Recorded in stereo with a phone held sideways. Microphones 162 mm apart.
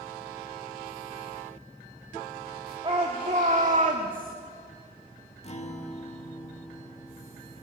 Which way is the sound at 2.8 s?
35° right (ahead or behind).